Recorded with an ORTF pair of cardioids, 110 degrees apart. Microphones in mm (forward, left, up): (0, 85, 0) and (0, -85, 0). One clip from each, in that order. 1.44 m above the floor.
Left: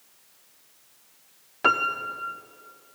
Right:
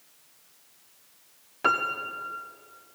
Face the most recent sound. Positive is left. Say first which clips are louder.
# left 3 dB
turn(degrees=10)